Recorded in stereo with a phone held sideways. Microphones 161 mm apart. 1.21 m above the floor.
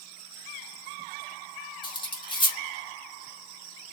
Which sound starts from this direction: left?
Cutlery clinking, at 1.8 s.